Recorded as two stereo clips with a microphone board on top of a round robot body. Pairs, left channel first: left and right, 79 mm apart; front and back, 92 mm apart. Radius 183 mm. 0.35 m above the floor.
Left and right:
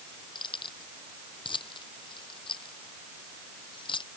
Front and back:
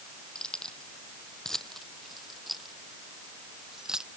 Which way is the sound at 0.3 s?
80° left.